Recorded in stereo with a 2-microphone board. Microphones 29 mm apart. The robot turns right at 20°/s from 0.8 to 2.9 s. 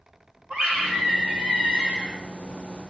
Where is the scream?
70° right (ahead or behind), 5.5 m; by 2.2 s 50° right (ahead or behind), 5.5 m.